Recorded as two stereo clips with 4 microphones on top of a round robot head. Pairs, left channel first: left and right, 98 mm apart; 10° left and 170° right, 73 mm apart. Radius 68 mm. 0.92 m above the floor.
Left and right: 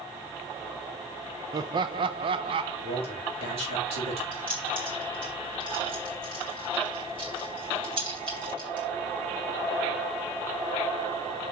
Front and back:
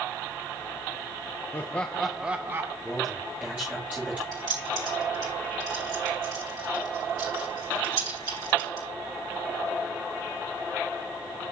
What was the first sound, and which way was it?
Laughter, 45° right.